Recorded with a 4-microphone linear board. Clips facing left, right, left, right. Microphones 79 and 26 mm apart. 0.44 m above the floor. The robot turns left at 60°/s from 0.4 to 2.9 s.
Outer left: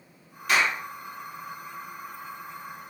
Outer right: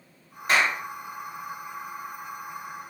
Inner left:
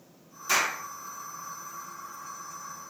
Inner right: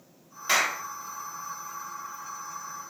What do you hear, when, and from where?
0.5 s a clap: 35° right (ahead or behind), 1.3 m; by 0.8 s 45° right (ahead or behind), 1.3 m